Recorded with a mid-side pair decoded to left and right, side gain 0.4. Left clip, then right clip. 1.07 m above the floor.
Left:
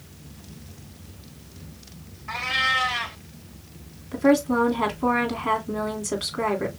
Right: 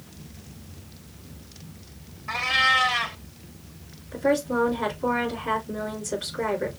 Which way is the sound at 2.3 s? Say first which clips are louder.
Right 2 dB; 20° right.